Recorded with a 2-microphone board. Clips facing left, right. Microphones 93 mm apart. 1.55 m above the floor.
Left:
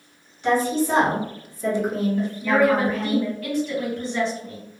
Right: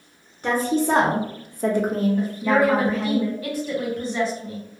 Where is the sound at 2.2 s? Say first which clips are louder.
Left 2 dB; 15° right (ahead or behind), 1.4 m.